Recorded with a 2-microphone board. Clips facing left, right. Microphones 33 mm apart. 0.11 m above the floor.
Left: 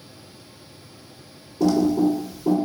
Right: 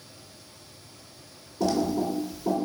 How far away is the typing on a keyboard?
About 1.1 m.